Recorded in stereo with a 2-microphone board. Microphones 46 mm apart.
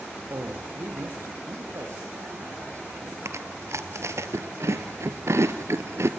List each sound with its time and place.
0.3 s a man speaking: 65° right (ahead or behind), 5.5 m
3.2 s chewing: 70° right (ahead or behind), 1.6 m